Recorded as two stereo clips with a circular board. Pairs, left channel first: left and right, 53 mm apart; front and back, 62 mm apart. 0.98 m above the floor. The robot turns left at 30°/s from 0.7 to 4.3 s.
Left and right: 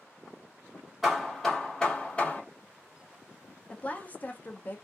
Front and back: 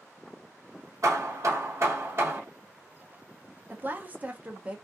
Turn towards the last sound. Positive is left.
turn(degrees=125)